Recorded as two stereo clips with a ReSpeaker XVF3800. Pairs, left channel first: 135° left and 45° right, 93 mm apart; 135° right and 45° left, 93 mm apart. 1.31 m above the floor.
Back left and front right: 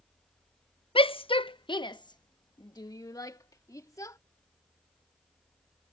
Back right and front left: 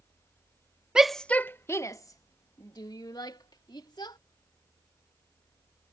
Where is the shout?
125° left; by 4.2 s 175° right.